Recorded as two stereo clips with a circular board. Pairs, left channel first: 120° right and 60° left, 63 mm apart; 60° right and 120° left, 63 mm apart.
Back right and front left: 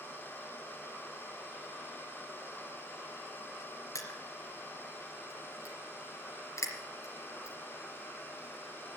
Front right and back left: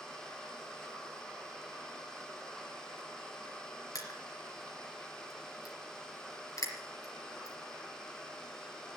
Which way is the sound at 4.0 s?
90° right.